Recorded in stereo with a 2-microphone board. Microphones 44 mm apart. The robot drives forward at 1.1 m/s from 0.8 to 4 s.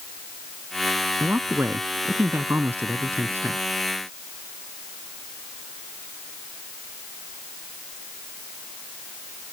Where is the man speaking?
55° right (ahead or behind); by 3.6 s 50° right (ahead or behind).